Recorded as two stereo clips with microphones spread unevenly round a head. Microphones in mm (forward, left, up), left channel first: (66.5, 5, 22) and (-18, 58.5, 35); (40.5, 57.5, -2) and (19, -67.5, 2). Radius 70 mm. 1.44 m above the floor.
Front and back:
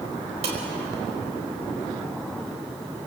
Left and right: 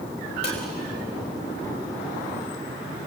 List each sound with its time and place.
0.4 s dishes clattering: 135° left, 5 m